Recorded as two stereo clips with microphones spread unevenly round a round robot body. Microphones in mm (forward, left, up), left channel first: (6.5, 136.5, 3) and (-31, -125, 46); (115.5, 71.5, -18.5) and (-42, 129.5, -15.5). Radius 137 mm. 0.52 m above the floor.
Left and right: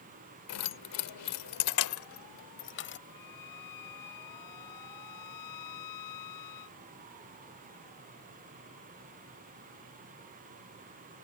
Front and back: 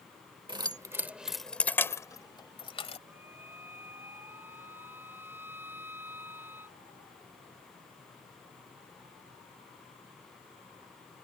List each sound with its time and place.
0.5 s keys jangling: 100° left; by 3.0 s 35° left
3.1 s a violin: 80° left